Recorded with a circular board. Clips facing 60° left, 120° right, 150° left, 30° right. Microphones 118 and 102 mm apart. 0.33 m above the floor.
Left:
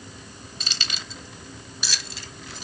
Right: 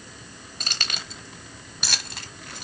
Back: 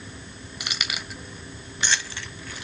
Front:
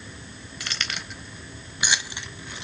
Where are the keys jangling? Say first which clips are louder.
Right 2 dB, even; 140° right, 1.0 m; by 2.6 s 95° right, 1.6 m.